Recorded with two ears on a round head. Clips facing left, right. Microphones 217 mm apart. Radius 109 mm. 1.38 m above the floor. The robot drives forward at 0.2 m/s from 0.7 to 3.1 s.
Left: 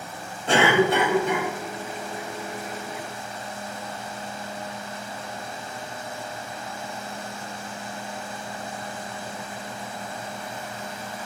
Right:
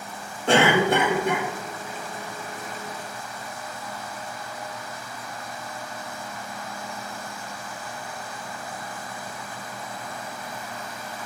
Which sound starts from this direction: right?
A cough, at 0.5 s.